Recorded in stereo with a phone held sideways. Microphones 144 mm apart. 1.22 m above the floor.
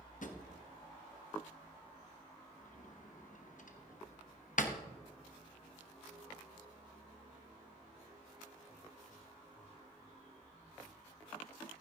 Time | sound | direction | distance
0.2 | a drawer | 65° left (ahead or behind) | 1.0 m